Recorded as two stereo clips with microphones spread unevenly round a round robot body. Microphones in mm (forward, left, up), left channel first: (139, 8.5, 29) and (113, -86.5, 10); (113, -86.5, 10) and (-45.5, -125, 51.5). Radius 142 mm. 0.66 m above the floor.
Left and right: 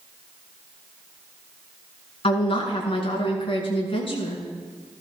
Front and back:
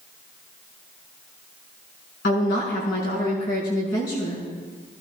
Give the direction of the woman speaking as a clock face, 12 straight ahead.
10 o'clock.